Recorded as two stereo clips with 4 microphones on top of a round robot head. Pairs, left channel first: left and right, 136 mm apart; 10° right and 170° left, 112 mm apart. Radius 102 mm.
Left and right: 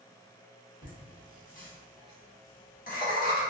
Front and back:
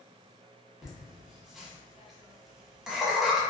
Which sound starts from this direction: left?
Laughter, at 0.8 s.